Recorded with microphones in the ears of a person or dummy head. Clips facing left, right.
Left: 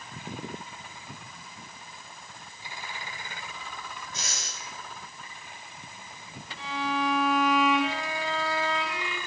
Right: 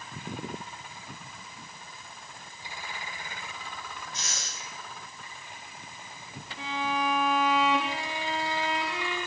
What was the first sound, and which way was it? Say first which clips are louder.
Breathing: left 1 dB; 80° left.